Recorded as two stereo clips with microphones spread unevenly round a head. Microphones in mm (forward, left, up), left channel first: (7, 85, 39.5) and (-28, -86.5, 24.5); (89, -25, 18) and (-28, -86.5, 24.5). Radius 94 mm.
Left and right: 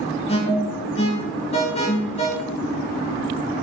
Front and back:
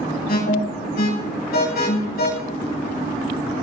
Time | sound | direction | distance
0.3 | an alarm | 20° left | 6.5 m